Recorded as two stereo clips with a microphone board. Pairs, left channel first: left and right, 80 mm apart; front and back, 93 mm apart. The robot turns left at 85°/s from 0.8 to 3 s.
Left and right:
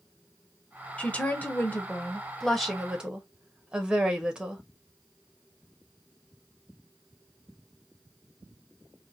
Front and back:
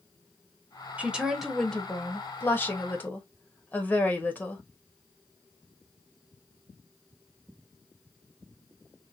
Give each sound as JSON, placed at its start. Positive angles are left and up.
{"t": 1.0, "sound": "a woman speaking", "azimuth_deg": 140, "distance_m": 1.0}